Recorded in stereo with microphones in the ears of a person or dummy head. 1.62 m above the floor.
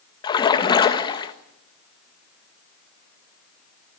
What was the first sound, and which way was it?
A splash, 25° left (ahead or behind).